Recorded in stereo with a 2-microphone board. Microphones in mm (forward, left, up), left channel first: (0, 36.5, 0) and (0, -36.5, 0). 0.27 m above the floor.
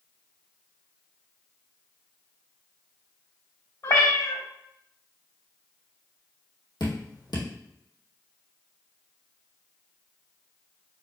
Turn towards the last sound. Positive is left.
turn(degrees=90)